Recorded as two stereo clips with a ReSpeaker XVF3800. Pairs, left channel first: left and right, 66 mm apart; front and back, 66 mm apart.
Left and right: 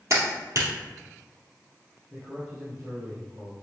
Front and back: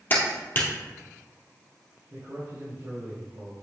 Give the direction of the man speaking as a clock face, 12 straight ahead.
5 o'clock.